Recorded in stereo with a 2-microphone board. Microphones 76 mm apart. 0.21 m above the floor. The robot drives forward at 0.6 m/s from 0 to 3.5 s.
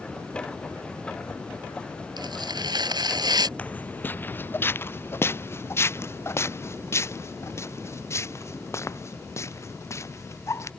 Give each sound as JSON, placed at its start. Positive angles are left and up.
{"t": 2.2, "sound": "tearing paper", "side_deg": -70}
{"t": 3.6, "sound": "footsteps", "side_deg": 20}